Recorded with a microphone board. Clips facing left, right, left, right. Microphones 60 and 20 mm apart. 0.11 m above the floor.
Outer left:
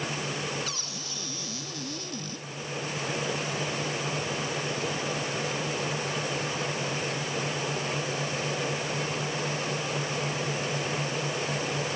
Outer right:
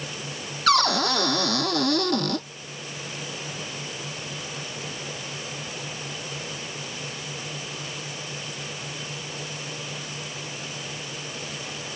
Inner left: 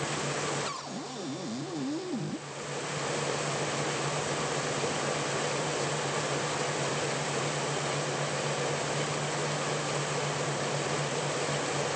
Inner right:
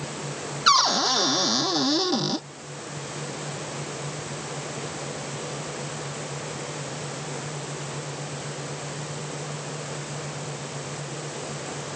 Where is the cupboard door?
70° right (ahead or behind).